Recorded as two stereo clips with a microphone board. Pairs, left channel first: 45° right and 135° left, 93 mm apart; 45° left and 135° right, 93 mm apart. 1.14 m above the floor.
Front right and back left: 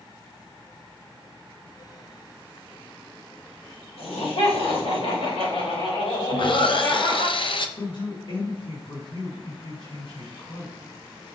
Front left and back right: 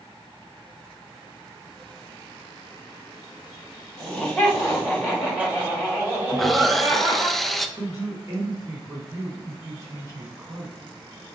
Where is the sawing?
45° right, 0.6 m.